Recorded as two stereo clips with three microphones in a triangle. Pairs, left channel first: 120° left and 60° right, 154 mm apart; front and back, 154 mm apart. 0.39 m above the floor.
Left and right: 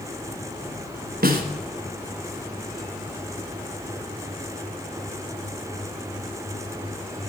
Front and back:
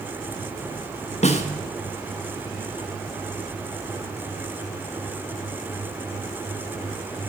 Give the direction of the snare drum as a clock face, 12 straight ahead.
2 o'clock.